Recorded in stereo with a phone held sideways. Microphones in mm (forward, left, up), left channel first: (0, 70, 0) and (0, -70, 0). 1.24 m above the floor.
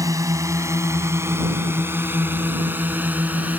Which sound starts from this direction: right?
A drone, at 0.0 s.